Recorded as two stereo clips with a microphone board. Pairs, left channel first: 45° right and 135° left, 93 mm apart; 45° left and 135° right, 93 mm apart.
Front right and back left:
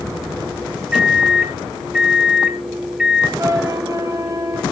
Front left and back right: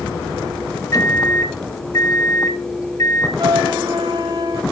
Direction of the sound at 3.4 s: 175° right.